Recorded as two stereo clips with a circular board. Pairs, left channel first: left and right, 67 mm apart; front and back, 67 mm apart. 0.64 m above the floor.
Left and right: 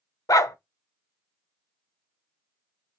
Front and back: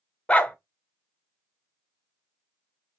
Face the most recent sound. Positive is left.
turn(degrees=70)